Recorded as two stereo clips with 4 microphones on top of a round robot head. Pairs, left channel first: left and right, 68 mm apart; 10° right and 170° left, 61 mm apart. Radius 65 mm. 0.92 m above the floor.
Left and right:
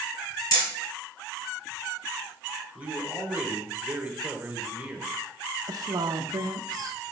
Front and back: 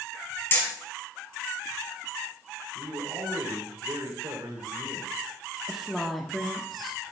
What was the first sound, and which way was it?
Hammering, 45° left.